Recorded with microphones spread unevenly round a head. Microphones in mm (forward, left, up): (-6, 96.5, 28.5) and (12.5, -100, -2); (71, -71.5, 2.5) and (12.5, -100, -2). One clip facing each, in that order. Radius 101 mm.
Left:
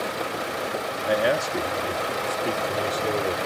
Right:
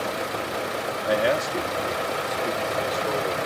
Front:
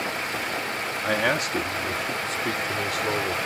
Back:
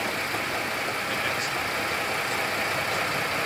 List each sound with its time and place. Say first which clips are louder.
1.0 s a man speaking: even, front 4 dB; 5° left; by 3.4 s 30° left